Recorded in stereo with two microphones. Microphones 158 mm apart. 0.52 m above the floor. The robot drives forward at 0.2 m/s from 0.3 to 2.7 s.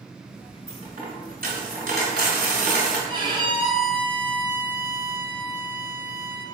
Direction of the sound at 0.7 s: 65° right (ahead or behind).